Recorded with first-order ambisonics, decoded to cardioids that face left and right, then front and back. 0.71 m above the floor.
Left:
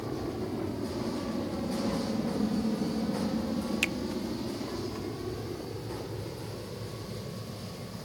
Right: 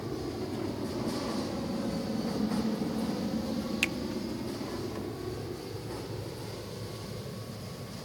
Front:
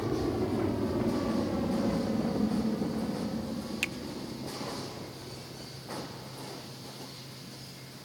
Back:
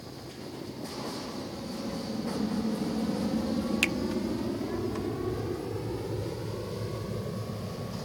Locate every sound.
0.0 s an aircraft: 5° left; by 8.1 s straight behind
3.8 s a finger snap: straight behind